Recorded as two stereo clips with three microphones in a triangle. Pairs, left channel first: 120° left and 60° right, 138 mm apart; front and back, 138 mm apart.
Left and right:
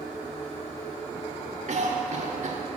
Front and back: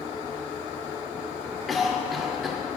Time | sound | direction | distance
1.7 | a cough | 90° right | 1.5 m